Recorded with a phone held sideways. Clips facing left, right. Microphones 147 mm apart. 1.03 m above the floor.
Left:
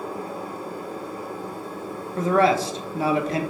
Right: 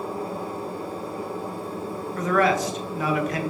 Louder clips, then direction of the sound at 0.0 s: Right 2 dB; 30° right (ahead or behind).